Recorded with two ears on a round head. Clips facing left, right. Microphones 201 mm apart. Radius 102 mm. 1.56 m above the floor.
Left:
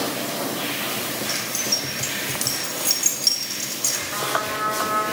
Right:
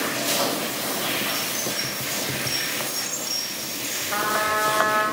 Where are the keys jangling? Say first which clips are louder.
Even; 80° left, 5.5 m.